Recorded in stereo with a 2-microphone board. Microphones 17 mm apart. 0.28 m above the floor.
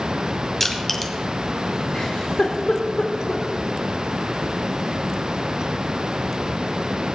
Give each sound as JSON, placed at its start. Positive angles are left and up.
{"t": 0.6, "sound": "crushing", "side_deg": 20, "distance_m": 1.4}
{"t": 1.9, "sound": "a giggle", "side_deg": 85, "distance_m": 3.0}